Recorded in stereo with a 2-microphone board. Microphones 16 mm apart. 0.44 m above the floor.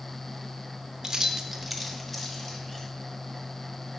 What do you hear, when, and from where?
1.0 s keys jangling: 30° right (ahead or behind), 0.6 m; by 2.9 s 20° left (ahead or behind), 1.6 m